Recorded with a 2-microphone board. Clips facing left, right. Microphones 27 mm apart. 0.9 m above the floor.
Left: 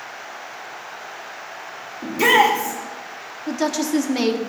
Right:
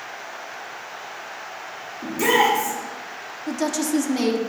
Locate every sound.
2.0 s a shout: 45° left (ahead or behind), 1.6 m
3.5 s a woman speaking: 25° left (ahead or behind), 1.3 m